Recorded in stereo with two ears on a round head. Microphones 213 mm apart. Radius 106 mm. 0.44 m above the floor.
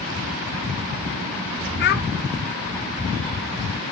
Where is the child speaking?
45° left (ahead or behind), 0.7 m.